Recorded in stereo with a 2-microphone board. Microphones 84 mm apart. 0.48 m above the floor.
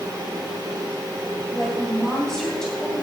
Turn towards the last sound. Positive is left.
turn(degrees=5)  # may be behind; listen again after turning